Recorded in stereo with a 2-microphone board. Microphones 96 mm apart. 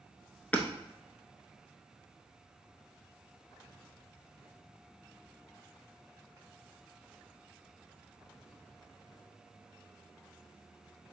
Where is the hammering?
15° left (ahead or behind), 0.6 m.